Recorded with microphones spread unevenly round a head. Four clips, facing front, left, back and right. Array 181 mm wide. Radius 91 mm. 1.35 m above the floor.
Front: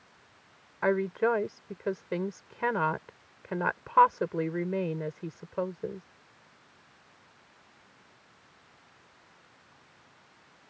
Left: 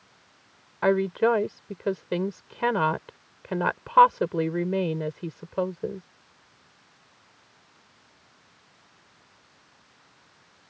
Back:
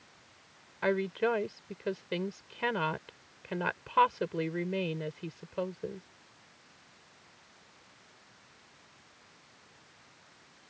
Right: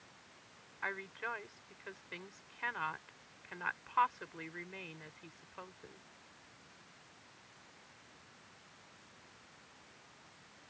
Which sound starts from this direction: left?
A woman speaking, at 0.8 s.